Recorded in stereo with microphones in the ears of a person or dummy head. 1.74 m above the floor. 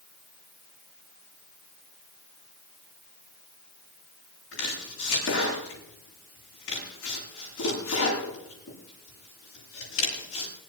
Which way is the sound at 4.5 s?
80° left.